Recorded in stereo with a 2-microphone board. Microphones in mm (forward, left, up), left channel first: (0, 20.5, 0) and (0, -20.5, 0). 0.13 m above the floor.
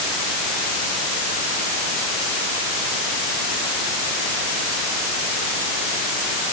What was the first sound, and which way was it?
Only background noise.